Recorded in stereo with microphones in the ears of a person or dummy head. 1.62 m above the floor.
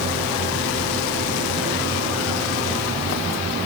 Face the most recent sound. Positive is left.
No sound to turn to.